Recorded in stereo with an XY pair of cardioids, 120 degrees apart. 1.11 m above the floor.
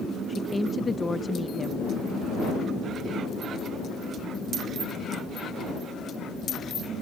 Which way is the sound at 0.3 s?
25° left.